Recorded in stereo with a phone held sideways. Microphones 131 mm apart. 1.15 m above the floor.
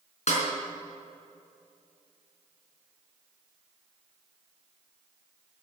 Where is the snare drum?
60° left (ahead or behind), 4.5 m.